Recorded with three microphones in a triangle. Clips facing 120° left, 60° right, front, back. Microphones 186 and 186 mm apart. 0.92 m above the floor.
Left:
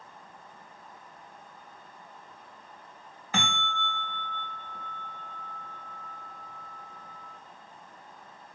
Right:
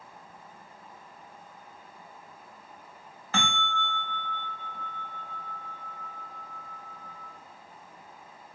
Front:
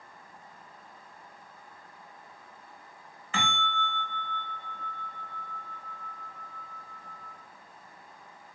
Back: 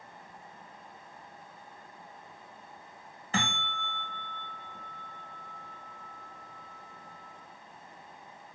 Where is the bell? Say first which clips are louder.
Right 1 dB, front 1 dB; 170° right, 1.0 m.